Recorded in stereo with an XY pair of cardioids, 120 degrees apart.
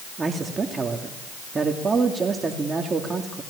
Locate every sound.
0.2 s a man speaking: 25° right, 2.5 m